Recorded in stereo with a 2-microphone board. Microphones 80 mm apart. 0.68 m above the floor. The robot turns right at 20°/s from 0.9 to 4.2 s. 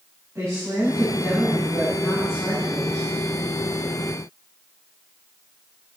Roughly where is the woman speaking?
Ahead right.